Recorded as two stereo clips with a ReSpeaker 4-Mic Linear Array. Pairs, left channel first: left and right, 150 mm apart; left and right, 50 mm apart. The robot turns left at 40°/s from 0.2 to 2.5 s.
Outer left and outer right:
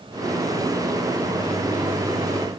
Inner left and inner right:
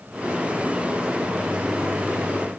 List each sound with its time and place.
Only background noise.